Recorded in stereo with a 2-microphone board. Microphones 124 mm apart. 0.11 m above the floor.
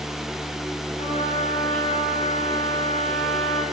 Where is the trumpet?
75° left (ahead or behind), 9.5 m.